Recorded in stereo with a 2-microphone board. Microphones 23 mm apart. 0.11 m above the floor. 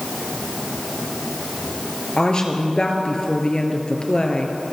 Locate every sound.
2.2 s a woman speaking: 35° left (ahead or behind), 1.7 m